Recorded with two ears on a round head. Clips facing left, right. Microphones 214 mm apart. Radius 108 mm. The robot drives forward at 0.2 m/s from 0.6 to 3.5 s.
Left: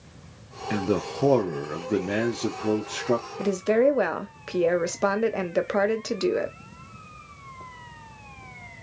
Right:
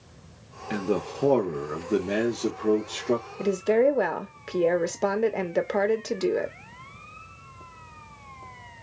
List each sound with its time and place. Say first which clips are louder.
0.7 s a man speaking: left 1 dB; 10° left (ahead or behind), 0.9 m
3.4 s a woman speaking: even; 5° left (ahead or behind), 0.7 m